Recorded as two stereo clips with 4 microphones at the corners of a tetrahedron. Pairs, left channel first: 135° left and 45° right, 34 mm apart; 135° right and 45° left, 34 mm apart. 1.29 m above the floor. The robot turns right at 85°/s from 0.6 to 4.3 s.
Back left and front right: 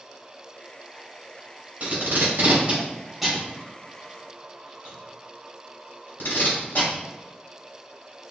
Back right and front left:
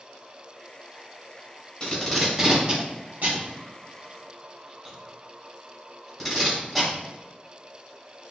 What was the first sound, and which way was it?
Tape being pulled, 85° right.